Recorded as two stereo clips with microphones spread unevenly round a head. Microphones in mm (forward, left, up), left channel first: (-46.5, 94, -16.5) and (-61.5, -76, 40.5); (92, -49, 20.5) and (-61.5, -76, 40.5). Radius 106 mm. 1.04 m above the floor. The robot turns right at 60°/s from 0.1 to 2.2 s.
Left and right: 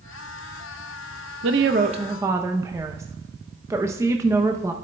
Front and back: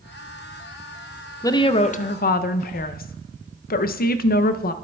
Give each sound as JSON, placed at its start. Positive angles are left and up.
{"t": 1.4, "sound": "a woman speaking", "azimuth_deg": -60, "distance_m": 0.6}